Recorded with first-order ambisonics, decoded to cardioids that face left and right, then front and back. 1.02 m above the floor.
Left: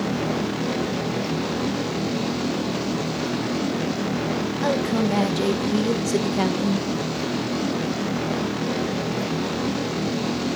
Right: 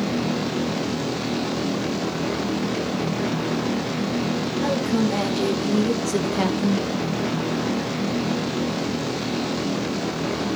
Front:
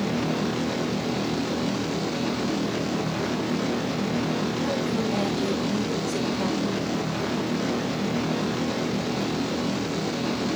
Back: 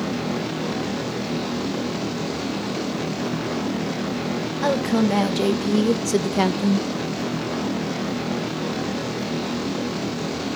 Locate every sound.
4.6 s a woman speaking: 165° left, 2 m; by 6.9 s 170° right, 0.8 m